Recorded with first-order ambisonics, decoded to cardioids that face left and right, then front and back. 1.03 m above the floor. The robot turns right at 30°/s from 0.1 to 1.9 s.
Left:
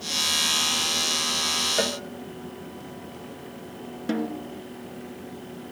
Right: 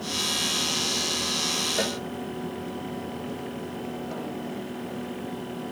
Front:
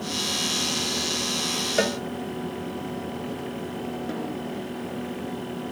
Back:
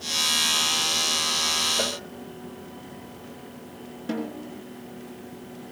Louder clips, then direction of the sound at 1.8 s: Left 2 dB, front 3 dB; 10° left.